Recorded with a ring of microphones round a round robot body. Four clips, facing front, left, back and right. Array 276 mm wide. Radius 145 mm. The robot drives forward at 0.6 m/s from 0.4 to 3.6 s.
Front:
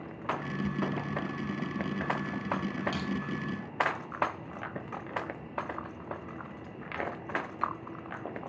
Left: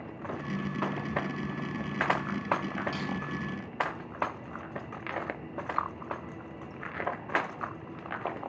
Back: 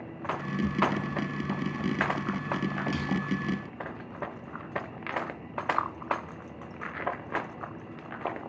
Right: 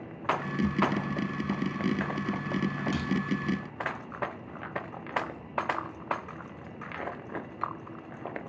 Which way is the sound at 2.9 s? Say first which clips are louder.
Right 3 dB, back 2 dB; 105° right.